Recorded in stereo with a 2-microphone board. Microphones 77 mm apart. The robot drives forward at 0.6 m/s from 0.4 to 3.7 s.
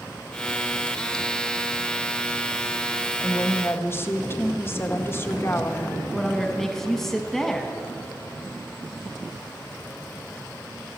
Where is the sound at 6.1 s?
5° left (ahead or behind), 0.9 m.